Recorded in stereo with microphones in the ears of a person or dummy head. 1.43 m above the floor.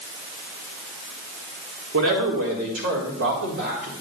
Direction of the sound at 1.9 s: 75° right (ahead or behind).